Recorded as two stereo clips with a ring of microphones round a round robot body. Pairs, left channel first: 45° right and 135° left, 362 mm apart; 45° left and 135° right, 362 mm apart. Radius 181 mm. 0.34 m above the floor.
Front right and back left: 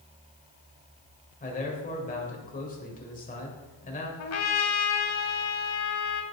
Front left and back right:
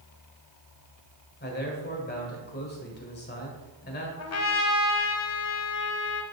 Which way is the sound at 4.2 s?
Straight ahead.